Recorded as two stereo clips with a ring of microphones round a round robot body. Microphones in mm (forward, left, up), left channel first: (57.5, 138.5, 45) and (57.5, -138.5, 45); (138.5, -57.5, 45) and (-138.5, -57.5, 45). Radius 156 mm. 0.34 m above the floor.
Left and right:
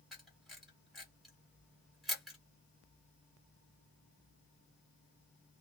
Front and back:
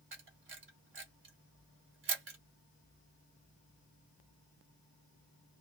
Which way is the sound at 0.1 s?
Straight behind.